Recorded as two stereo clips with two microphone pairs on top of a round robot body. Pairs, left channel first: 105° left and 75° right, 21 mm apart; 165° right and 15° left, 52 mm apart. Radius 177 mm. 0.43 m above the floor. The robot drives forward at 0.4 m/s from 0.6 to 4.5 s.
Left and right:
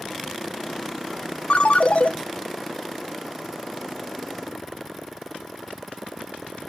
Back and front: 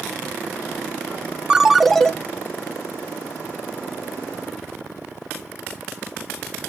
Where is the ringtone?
90° left, 0.6 m; by 2.1 s 110° left, 0.7 m.